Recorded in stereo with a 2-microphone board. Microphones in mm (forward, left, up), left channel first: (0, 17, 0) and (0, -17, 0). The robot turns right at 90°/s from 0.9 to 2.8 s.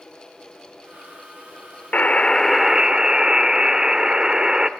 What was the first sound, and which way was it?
A buzzer, 125° left.